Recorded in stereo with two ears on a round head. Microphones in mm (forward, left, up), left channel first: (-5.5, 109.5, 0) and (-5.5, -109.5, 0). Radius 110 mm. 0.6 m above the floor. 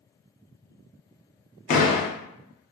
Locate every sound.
1.7 s a door slam: 35° left (ahead or behind), 0.6 m